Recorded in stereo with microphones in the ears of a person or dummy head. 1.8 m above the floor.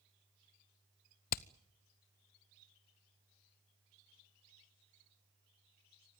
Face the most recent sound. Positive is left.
turn(degrees=45)  # may be behind; listen again after turning